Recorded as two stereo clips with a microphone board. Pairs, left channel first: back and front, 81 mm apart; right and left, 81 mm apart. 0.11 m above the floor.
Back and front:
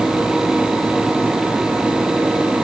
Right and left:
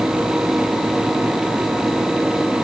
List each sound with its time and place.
Only background noise.